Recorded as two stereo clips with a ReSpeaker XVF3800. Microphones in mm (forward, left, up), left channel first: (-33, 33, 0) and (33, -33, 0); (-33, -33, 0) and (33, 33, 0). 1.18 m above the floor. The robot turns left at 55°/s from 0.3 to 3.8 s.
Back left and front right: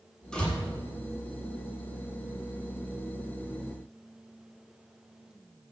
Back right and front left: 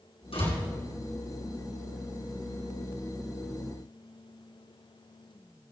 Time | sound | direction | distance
0.3 | a door slam | 140° right | 8.5 m